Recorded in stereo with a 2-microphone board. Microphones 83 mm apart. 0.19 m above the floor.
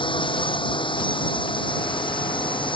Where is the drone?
80° left.